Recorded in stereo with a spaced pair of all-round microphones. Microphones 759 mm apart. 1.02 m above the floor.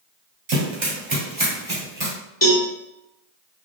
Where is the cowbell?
30° left (ahead or behind), 0.7 m.